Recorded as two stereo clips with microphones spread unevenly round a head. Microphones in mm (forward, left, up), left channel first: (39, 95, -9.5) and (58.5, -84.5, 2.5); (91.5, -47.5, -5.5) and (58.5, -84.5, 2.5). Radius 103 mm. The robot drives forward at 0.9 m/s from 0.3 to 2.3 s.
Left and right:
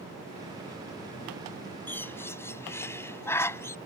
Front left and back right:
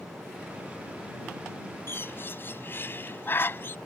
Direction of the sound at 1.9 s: 15° left.